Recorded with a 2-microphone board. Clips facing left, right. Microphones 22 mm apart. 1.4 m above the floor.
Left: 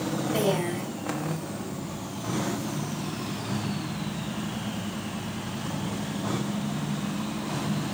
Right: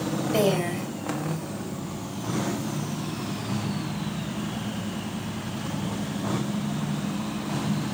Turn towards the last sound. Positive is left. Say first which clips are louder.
# right 3 dB
turn(degrees=-65)  # may be behind; listen again after turning